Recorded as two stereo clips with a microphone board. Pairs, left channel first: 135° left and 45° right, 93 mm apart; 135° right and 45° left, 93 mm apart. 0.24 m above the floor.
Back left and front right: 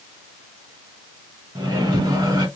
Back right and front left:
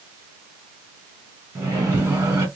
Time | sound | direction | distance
1.6 | a microwave | 15° right | 1.8 m